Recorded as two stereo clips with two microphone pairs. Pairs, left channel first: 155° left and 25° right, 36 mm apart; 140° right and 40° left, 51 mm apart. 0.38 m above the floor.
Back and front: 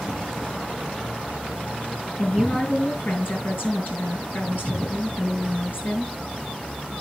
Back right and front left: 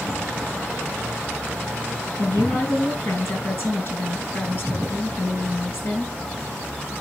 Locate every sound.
2.2 s a woman speaking: straight behind, 6 m